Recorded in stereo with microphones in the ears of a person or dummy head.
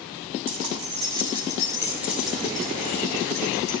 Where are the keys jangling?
45° right (ahead or behind), 2.5 m; by 3.7 s 15° left (ahead or behind), 4 m.